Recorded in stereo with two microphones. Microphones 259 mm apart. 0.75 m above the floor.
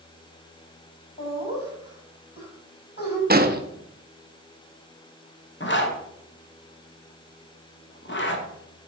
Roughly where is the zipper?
Left.